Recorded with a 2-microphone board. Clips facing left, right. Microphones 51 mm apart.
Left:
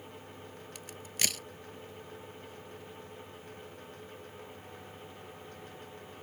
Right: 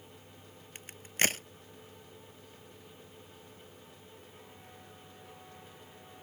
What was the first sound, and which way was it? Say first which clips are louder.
A crack: right 6 dB; 40° right (ahead or behind).